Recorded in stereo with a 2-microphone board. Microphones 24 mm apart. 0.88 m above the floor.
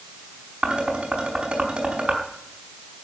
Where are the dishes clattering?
55° right (ahead or behind), 5 m.